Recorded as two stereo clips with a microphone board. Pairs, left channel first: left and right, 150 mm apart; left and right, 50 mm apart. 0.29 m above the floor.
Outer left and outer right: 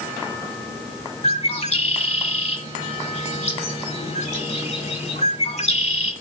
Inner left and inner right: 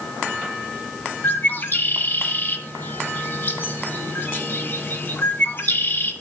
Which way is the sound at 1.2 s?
45° left (ahead or behind).